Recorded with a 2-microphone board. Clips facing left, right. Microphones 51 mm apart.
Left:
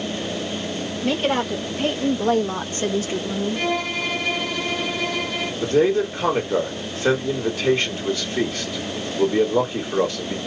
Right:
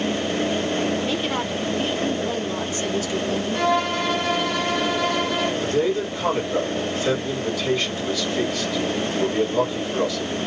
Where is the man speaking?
40° left (ahead or behind), 2.0 m.